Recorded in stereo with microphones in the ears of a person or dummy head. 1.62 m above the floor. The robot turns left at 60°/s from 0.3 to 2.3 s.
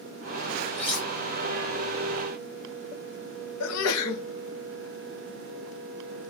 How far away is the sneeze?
About 0.6 m.